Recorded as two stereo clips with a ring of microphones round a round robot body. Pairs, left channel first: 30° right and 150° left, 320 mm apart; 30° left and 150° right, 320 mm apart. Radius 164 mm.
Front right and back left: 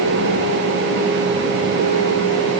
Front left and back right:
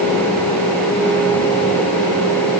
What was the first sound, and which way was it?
Only background noise.